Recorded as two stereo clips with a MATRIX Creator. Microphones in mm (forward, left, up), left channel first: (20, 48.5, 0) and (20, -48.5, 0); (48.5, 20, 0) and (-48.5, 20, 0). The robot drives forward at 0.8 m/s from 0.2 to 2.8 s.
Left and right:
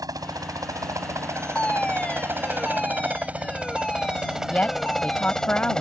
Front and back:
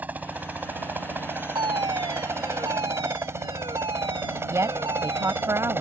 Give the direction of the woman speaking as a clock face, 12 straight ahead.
7 o'clock.